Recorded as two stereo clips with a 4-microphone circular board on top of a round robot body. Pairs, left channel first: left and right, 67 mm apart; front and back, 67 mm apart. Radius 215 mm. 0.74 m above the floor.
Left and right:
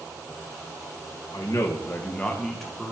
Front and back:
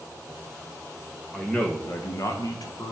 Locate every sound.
1.3 s a man speaking: 85° left, 1.5 m; by 2.9 s straight ahead, 2 m